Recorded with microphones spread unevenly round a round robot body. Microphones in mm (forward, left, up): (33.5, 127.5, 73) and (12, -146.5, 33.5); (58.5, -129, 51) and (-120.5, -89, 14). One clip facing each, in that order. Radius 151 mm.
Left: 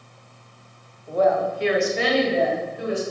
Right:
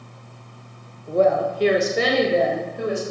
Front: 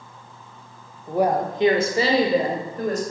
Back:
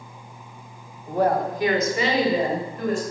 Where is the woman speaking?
110° right, 0.9 m; by 3.0 s 65° right, 2 m.